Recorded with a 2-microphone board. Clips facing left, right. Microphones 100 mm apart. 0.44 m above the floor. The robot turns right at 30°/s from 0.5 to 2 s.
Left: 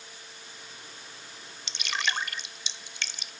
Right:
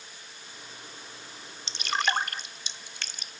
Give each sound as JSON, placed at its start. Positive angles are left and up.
{"t": 1.7, "sound": "dripping", "side_deg": -35}